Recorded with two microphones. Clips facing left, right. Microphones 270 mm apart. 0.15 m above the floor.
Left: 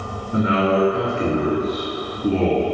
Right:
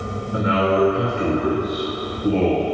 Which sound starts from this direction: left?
A man speaking, at 0.3 s.